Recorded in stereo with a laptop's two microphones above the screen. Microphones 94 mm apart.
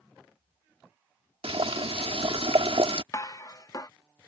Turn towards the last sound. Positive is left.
turn(degrees=40)  # may be behind; listen again after turning